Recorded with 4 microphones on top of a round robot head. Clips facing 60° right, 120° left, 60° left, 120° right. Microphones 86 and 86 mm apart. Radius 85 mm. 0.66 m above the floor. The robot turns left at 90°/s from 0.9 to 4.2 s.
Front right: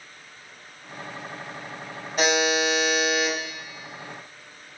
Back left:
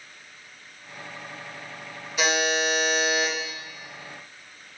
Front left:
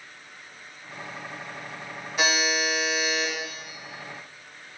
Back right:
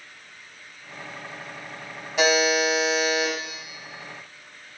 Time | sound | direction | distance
2.2 | a buzzer | 105° right | 4.5 m